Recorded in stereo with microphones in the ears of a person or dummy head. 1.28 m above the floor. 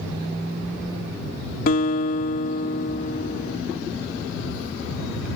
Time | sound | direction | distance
1.7 | a guitar | 50° left (ahead or behind) | ?